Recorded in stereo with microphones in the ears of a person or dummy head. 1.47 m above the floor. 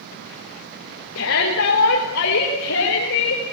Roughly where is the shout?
Left.